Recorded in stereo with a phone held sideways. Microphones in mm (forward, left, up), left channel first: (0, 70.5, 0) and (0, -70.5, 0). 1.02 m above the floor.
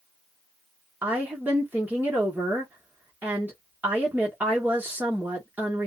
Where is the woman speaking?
10° right (ahead or behind), 1.2 m.